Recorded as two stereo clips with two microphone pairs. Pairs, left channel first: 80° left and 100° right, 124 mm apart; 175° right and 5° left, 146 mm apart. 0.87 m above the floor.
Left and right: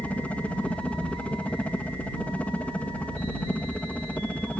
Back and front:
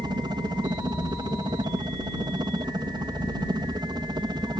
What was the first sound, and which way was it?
A helicopter, 10° left.